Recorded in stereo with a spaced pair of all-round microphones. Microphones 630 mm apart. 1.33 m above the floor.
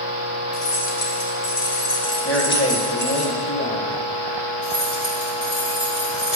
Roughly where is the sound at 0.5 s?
Left.